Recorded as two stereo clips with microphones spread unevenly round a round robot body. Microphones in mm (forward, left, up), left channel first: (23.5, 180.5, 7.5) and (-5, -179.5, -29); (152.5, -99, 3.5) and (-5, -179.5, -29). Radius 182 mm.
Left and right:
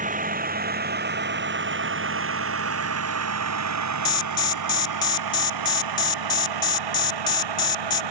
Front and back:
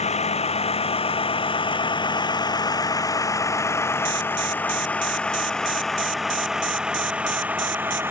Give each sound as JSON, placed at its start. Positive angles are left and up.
{"t": 0.0, "sound": "a vehicle", "azimuth_deg": -25}
{"t": 4.0, "sound": "an alarm", "azimuth_deg": 165}